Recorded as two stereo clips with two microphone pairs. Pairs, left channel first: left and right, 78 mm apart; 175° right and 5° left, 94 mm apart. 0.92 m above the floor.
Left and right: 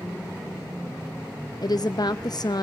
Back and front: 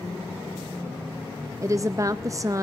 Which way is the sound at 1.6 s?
60° left.